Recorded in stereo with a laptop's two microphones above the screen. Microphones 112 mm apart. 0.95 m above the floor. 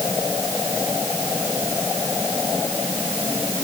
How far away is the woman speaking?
No woman speaking in this recording.